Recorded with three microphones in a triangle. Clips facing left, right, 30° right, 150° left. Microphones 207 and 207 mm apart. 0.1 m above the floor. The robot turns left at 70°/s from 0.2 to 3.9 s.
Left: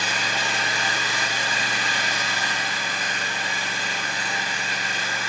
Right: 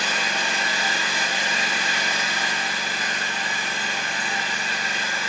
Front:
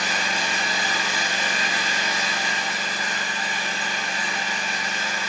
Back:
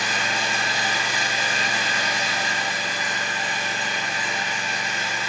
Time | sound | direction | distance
0.0 | an engine running | 30° left | 1.5 m